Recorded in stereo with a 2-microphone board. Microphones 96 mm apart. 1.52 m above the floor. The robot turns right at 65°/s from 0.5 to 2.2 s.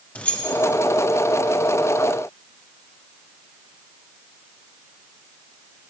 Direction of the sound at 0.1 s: 15° left (ahead or behind).